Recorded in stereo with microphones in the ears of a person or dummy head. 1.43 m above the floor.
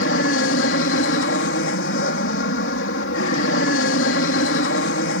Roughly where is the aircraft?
Left.